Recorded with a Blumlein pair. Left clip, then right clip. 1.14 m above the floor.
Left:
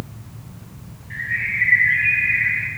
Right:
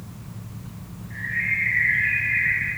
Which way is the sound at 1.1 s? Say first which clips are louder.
Left 2 dB; 60° left.